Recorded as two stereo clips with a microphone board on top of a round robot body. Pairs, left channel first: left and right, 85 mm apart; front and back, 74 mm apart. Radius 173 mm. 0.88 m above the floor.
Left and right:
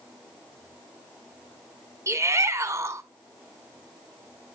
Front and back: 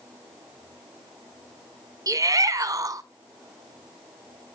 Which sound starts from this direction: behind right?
A shout, at 2.1 s.